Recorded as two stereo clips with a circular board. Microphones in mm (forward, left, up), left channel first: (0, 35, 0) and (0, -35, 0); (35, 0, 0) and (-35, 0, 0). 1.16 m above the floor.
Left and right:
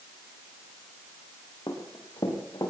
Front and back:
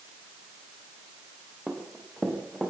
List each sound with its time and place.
1.7 s running footsteps: 90° left, 5.5 m; by 2.7 s 95° left, 6 m